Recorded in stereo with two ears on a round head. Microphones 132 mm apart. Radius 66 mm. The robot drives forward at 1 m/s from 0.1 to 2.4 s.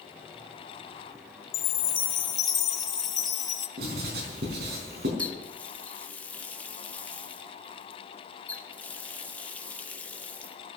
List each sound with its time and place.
1.5 s a chime: 35° left (ahead or behind), 1.0 m; by 3.7 s 30° left (ahead or behind), 1.2 m
3.8 s writing: 80° right, 4.5 m
5.2 s a running tap: 10° left (ahead or behind), 0.9 m